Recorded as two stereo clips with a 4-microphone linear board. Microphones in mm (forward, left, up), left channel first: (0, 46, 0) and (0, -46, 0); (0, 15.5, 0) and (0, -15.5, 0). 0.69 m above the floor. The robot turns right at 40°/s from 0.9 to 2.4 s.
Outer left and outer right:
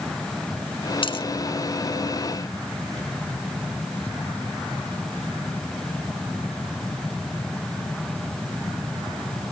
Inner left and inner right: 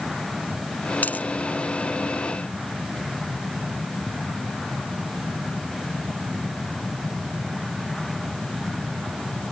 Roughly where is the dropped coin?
Left.